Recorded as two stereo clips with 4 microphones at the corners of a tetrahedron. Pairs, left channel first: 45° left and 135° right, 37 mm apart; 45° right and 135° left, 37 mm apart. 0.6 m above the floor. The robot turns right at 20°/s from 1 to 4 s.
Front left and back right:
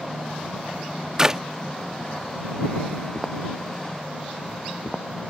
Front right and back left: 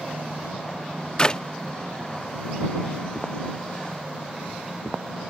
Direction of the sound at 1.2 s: 85° right.